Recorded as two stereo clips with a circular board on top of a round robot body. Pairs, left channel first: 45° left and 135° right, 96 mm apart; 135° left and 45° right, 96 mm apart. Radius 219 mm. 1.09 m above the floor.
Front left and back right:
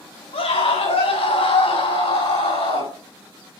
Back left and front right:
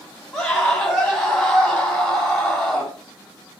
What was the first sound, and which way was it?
A scream, 50° left.